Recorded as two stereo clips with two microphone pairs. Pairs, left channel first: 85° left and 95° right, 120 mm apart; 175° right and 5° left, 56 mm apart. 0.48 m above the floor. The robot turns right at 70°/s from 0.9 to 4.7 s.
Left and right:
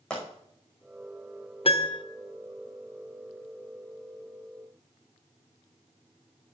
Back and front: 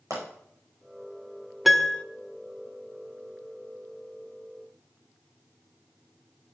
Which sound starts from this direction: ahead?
A pop, at 0.1 s.